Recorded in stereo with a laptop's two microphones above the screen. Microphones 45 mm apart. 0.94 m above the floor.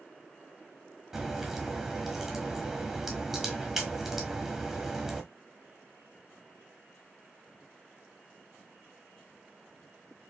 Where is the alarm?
I don't hear an alarm.